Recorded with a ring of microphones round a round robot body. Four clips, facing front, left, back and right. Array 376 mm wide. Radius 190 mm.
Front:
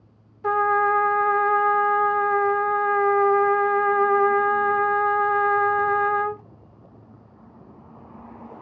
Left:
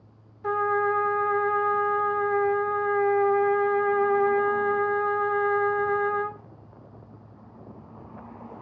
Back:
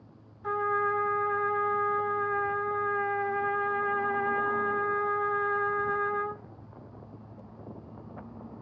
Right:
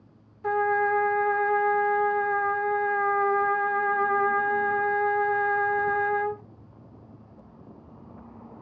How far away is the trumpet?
About 1.1 m.